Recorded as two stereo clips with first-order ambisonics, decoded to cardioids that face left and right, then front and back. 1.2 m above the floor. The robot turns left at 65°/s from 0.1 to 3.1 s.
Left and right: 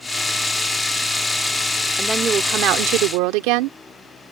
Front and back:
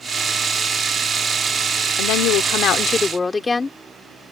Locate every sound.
2.0 s a woman speaking: 5° right; by 3.8 s 80° right